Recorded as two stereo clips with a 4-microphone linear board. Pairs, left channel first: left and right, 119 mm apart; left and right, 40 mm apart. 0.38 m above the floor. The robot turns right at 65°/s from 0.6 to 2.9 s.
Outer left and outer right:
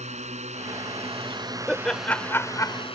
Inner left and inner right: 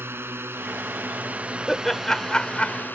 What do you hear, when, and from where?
0.0 s a drone: 95° right; by 3.0 s 55° left
1.7 s laughter: centre (ahead or behind); by 2.8 s 30° left (ahead or behind)